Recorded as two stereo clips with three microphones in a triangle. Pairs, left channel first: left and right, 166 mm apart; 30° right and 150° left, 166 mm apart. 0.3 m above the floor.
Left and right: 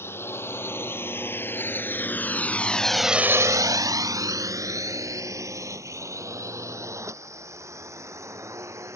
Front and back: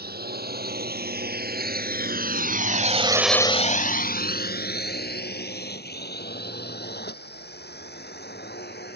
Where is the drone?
165° left; by 9.0 s 15° right.